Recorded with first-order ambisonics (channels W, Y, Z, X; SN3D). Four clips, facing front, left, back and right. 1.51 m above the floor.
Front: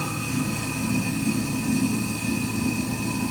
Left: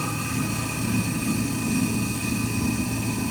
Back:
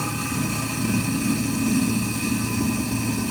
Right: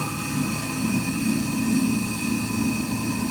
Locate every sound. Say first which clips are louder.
0.0 s running water: right 1 dB, back 1 dB; 170° right, 3.5 m